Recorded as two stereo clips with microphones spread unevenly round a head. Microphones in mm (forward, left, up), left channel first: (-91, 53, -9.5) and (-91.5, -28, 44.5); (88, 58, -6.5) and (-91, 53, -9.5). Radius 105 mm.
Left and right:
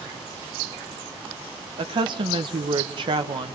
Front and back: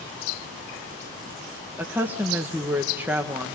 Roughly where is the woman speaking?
Right.